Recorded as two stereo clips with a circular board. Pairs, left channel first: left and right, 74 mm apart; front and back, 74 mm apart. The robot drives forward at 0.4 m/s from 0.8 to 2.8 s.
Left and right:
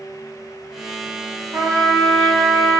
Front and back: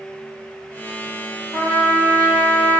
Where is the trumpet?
165° left, 1.7 m; by 2.8 s 170° left, 2 m.